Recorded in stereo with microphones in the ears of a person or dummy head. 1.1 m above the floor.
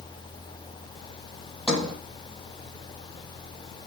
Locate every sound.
1.7 s a sliding door: 5° left (ahead or behind), 5.5 m